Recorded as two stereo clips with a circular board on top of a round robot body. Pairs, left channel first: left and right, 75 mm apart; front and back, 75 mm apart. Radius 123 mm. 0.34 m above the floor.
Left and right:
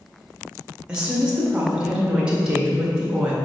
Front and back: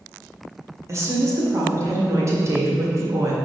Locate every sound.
0.9 s a woman speaking: 165° right, 1.9 m